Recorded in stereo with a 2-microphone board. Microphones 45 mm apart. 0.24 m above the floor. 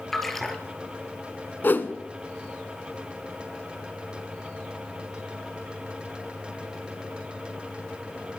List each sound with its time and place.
0.1 s a splash: 5° left (ahead or behind), 2.5 m
1.6 s a whoosh: 45° left (ahead or behind), 1.3 m